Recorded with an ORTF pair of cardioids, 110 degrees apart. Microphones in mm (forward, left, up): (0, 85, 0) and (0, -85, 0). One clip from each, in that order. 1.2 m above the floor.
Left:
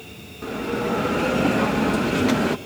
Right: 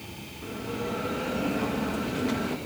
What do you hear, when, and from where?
0.4 s a bell: 50° left, 0.9 m